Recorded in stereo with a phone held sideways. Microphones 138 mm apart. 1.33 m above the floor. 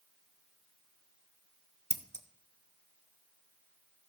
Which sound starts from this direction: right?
Scissors, at 1.9 s.